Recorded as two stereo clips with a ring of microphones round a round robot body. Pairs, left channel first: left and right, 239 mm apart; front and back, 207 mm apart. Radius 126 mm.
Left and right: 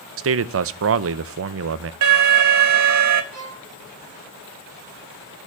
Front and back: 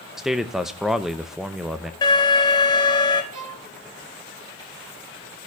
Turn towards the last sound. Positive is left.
turn(degrees=-150)